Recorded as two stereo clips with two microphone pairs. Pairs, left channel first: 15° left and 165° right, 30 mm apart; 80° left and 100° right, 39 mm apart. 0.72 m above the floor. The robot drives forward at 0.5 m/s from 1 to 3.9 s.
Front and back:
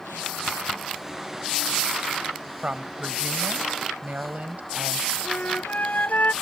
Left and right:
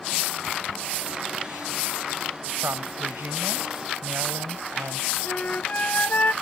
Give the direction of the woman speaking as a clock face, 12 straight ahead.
4 o'clock.